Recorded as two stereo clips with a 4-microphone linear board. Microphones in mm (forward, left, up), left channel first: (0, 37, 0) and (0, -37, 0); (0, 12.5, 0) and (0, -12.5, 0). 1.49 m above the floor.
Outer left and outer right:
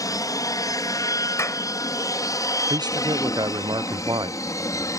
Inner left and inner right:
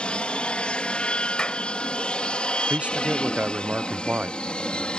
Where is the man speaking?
80° right.